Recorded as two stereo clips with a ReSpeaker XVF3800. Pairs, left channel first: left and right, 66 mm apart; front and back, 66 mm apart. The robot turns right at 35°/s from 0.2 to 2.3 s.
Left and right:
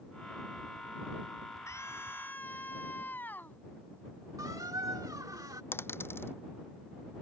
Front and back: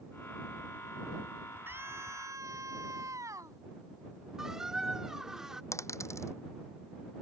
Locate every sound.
1.7 s a scream: 125° left; by 3.6 s 150° left
4.4 s a squeak: 100° right
5.7 s a dropped coin: 40° left